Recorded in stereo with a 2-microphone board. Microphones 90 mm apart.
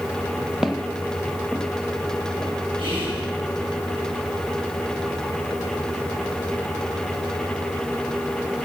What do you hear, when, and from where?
0.6 s footsteps: 5° right (ahead or behind), 0.9 m; by 2.5 s centre (ahead or behind), 1.9 m
2.8 s whispering: 70° right (ahead or behind), 5.5 m